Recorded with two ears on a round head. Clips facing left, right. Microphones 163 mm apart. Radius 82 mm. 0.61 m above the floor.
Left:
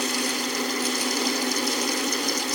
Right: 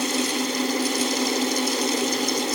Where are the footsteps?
No footsteps in this recording.